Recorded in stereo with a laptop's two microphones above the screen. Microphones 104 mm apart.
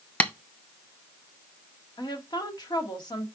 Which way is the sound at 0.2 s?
15° left (ahead or behind).